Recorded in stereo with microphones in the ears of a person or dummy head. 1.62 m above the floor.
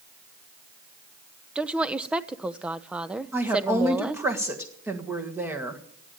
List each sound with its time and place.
1.6 s a woman speaking: 5° right (ahead or behind), 0.8 m
3.3 s a woman speaking: 10° right (ahead or behind), 1.5 m